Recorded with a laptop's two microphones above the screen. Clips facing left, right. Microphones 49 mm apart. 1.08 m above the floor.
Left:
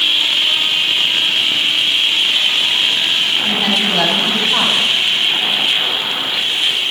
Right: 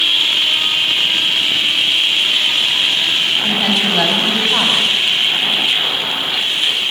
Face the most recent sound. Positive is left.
turn(degrees=-5)  # may be behind; listen again after turning